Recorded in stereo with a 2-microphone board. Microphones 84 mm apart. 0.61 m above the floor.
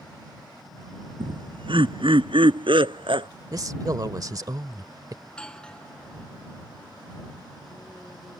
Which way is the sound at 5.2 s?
10° left (ahead or behind).